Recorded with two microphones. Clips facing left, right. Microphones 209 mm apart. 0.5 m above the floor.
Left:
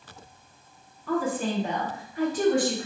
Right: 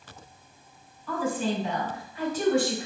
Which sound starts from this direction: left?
A woman speaking, at 1.1 s.